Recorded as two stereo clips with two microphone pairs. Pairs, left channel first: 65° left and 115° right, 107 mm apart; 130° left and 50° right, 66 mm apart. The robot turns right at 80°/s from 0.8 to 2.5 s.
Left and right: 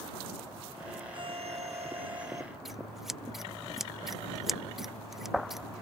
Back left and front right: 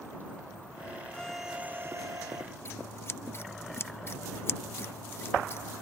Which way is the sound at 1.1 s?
160° right.